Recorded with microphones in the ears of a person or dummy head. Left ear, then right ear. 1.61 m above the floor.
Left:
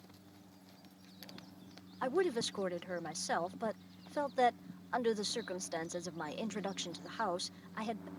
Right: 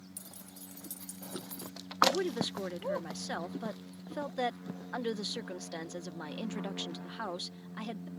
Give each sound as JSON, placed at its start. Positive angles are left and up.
{"t": 0.2, "sound": "keys jangling", "side_deg": -75}
{"t": 2.0, "sound": "a woman speaking", "side_deg": 25}